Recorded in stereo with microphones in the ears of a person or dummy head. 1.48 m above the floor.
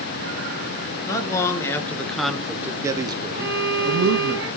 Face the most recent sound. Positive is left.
turn(degrees=-15)  # may be behind; listen again after turning